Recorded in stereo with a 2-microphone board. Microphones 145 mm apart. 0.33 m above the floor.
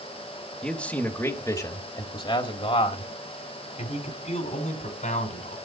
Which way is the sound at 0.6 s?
5° left (ahead or behind).